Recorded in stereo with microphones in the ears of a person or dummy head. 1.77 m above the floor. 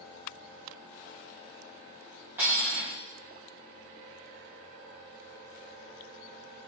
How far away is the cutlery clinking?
About 1.8 m.